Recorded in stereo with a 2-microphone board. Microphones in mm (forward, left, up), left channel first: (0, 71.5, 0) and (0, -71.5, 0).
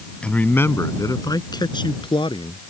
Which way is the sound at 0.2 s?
5° left (ahead or behind).